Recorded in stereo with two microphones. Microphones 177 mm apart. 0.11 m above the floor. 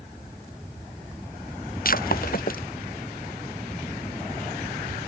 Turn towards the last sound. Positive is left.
turn(degrees=55)  # may be behind; listen again after turning